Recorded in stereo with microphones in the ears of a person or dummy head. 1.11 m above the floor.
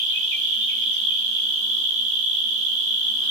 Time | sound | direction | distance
0.0 | an insect | 55° right (ahead or behind) | 1.5 m